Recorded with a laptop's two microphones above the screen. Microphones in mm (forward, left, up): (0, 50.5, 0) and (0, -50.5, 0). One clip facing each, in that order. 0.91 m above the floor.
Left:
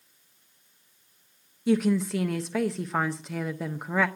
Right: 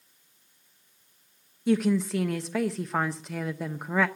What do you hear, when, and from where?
1.7 s a woman speaking: centre (ahead or behind), 0.6 m